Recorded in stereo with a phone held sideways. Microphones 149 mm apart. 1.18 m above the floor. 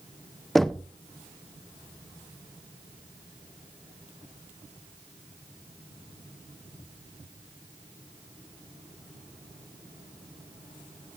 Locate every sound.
0.6 s knocking: centre (ahead or behind), 0.5 m